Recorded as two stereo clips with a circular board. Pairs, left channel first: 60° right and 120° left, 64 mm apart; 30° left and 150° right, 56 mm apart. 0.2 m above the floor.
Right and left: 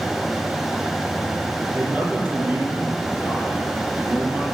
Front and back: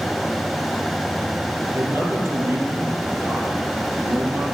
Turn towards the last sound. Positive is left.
turn(degrees=180)